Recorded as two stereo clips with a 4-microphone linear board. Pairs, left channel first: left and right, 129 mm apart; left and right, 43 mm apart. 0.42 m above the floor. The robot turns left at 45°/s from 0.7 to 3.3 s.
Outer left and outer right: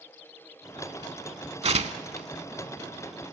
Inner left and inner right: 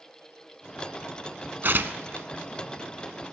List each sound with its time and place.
1.6 s tearing paper: 55° right (ahead or behind), 0.6 m; by 2.3 s 70° right (ahead or behind), 0.6 m